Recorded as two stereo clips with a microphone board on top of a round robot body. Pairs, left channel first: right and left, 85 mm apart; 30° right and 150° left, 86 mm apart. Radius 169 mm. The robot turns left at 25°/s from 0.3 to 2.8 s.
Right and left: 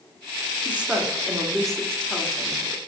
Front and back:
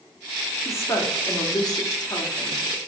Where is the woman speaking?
20° left, 2 m; by 2.8 s 35° right, 2 m.